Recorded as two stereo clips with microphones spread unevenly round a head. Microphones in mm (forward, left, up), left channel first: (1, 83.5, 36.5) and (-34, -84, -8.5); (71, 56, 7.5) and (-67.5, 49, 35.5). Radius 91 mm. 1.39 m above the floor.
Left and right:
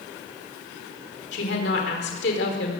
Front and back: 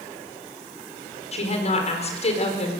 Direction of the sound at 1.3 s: 45° left.